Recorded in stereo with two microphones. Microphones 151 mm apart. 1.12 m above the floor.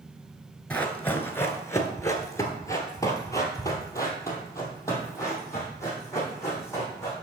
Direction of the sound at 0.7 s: 10° left (ahead or behind).